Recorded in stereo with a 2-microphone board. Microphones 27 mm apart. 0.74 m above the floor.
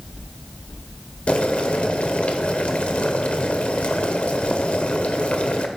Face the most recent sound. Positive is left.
turn(degrees=55)  # may be behind; listen again after turning